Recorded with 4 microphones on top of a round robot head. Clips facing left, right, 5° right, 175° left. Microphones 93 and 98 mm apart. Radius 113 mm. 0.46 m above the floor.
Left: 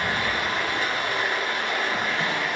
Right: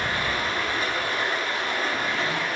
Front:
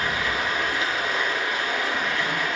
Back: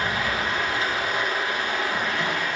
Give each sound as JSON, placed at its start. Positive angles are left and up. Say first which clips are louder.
{"t": 0.0, "sound": "running water", "louder": "left 1 dB, even", "azimuth_deg": 115, "distance_m": 1.5}